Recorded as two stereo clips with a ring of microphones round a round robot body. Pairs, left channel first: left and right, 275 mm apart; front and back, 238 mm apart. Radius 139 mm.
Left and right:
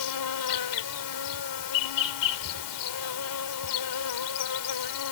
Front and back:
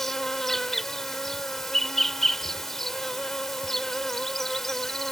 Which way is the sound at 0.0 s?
90° left.